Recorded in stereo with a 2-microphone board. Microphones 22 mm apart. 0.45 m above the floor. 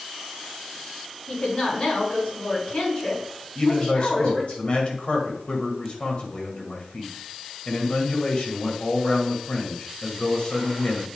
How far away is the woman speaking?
About 5 m.